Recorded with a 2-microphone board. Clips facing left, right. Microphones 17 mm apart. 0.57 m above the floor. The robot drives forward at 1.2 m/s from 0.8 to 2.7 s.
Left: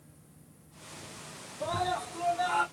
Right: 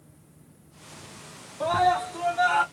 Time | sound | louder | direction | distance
1.6 | a scream | right 9 dB | 55° right (ahead or behind) | 1.0 m